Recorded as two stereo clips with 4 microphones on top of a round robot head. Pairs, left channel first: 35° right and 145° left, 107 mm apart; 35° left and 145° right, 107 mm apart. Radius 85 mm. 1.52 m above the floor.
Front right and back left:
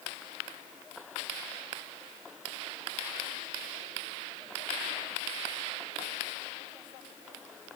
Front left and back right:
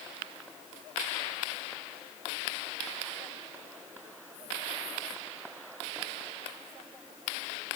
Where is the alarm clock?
No alarm clock in this recording.